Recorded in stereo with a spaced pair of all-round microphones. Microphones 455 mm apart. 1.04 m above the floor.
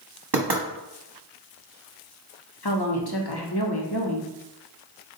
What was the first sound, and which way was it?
Knocking, 60° right (ahead or behind).